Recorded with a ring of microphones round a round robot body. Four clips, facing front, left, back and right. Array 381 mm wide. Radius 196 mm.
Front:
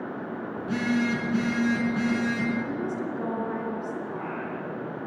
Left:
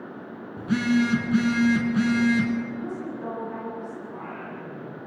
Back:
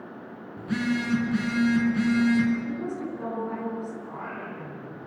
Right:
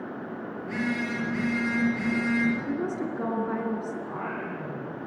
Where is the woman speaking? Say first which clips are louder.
Right 3 dB, front 1 dB; 70° right, 5 m.